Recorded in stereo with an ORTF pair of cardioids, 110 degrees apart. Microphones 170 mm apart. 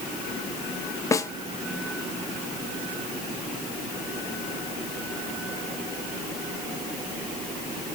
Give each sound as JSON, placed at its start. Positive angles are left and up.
{"t": 1.1, "sound": "a snare drum", "azimuth_deg": 20, "distance_m": 0.7}